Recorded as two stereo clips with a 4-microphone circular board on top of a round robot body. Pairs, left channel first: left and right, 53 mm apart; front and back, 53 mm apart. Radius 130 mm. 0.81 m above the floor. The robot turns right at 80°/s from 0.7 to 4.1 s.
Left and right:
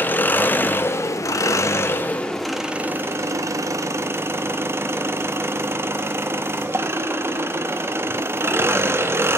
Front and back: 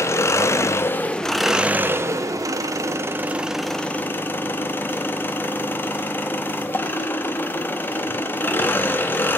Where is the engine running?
35° left, 1.0 m; by 9.4 s 55° right, 1.0 m.